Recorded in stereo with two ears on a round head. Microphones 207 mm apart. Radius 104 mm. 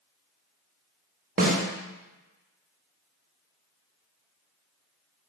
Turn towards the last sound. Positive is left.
turn(degrees=-40)  # may be behind; listen again after turning